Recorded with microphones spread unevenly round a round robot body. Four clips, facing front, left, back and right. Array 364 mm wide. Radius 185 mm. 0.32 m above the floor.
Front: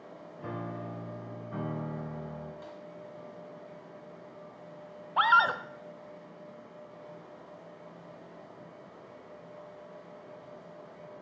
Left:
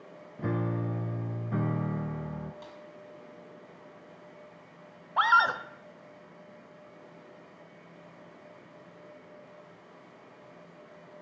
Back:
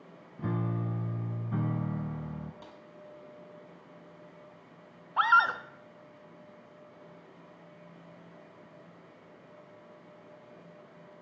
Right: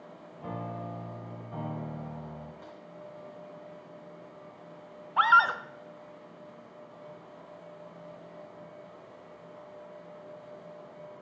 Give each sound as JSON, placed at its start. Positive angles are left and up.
{"t": 0.4, "sound": "a piano", "azimuth_deg": 135, "distance_m": 1.2}
{"t": 2.6, "sound": "a snare drum", "azimuth_deg": 170, "distance_m": 1.6}
{"t": 5.2, "sound": "a scream", "azimuth_deg": 30, "distance_m": 0.9}